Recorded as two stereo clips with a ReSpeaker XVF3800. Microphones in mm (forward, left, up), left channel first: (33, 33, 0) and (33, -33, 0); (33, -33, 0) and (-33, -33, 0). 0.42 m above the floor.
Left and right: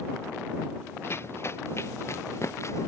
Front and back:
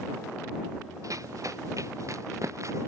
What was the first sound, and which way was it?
Running footsteps, 145° left.